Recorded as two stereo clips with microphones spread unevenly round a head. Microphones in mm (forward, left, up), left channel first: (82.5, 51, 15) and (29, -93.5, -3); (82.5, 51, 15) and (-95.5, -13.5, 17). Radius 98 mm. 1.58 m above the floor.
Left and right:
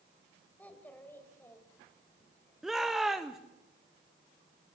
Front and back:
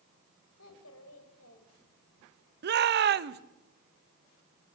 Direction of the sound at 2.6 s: 160° left.